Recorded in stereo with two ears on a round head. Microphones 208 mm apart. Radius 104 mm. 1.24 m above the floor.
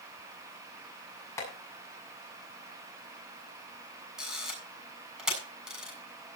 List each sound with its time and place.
1.4 s tapping: 15° left (ahead or behind), 7.5 m
4.2 s a camera shutter: 5° right (ahead or behind), 7.5 m